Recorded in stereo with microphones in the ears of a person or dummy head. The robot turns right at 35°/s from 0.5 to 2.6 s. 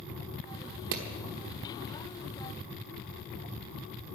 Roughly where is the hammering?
Right.